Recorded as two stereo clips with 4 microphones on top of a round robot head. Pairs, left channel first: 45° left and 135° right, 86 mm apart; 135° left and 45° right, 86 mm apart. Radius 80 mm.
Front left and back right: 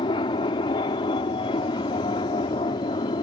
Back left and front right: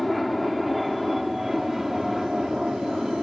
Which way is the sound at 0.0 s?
45° left.